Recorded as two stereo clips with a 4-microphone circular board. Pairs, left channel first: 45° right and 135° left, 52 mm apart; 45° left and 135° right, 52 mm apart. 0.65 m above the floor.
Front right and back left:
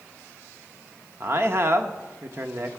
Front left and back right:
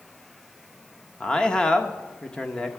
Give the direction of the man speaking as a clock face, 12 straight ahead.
8 o'clock.